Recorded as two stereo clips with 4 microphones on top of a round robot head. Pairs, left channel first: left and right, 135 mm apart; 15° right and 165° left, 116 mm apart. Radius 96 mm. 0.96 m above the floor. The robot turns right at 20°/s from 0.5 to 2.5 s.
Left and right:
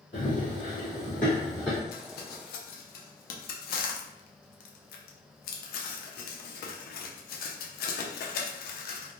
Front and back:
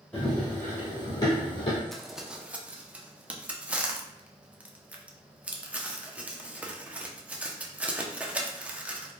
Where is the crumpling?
75° left, 0.5 m; by 9.1 s 85° left, 0.5 m.